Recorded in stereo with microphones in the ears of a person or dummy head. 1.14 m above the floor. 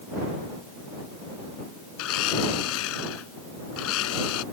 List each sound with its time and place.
2.0 s a blender: 85° left